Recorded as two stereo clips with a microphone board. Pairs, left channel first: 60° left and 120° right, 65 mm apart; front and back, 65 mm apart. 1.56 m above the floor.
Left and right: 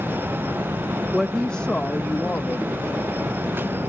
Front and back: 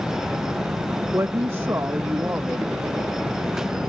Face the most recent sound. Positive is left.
turn(degrees=110)